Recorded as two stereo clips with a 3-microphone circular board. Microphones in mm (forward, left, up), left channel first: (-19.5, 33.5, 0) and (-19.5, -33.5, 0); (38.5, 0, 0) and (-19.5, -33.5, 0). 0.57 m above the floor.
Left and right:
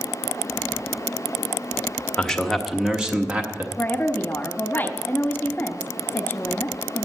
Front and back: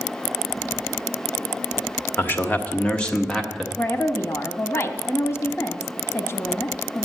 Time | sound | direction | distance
2.2 | a man speaking | 20° left | 1.1 m
3.8 | a woman speaking | 50° left | 1.1 m